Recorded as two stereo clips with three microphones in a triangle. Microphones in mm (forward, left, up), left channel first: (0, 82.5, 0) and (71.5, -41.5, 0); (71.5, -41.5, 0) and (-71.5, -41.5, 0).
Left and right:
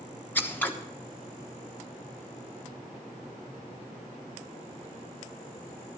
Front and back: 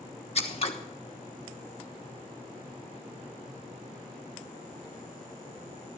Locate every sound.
0.3 s scissors: 45° left, 1.2 m